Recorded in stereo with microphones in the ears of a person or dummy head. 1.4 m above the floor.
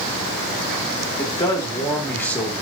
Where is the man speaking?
25° left (ahead or behind), 2.5 m; by 2.6 s 10° left (ahead or behind), 3.5 m.